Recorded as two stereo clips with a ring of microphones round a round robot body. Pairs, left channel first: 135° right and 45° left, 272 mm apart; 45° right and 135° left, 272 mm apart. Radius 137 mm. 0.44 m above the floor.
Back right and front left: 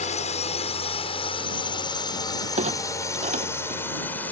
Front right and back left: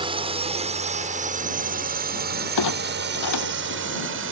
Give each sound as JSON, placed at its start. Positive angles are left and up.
{"t": 0.0, "sound": "a drone", "azimuth_deg": -170}
{"t": 2.6, "sound": "a clunk", "azimuth_deg": -20}